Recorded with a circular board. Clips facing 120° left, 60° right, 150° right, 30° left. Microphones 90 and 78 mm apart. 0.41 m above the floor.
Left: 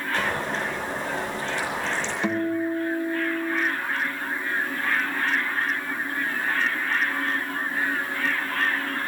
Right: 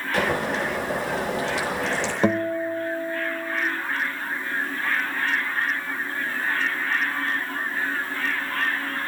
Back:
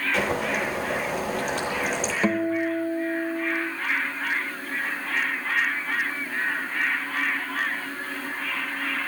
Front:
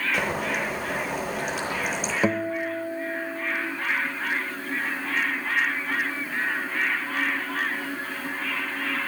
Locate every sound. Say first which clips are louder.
0.1 s boiling: right 4 dB, back 1 dB; 55° right, 9.5 m
2.2 s a guitar: right 2 dB, back 2 dB; 35° right, 1.2 m